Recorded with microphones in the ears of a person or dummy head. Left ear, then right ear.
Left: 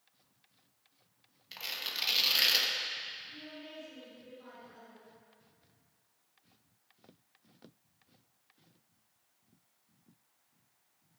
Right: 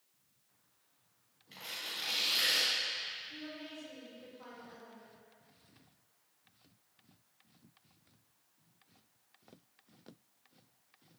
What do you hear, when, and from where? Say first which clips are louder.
1.5 s tearing paper: left 4 dB; 40° left (ahead or behind), 1.1 m
3.3 s a woman speaking: right 1 dB; 55° right (ahead or behind), 3 m